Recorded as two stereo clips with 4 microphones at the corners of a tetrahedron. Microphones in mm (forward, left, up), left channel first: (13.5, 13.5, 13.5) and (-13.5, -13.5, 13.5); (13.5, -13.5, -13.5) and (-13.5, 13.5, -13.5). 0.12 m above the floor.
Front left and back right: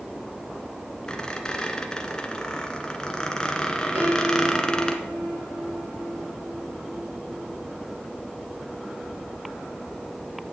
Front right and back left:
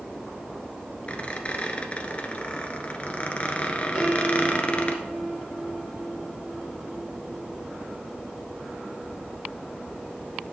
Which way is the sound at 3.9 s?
135° right.